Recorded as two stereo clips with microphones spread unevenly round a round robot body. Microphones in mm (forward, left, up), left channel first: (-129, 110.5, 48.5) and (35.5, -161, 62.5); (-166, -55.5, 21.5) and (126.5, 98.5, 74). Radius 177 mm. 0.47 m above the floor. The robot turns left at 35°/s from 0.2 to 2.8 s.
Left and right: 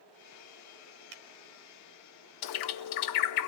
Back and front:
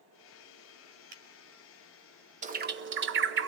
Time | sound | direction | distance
1.1 | a finger snap | 40° right | 2 m
2.4 | a bird | 100° left | 0.8 m